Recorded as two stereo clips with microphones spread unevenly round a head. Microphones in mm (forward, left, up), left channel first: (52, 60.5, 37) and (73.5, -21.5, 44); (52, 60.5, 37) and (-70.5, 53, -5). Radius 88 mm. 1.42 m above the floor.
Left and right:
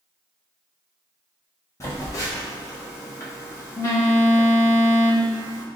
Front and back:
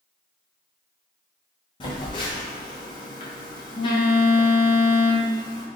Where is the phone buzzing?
50° left, 1.1 m.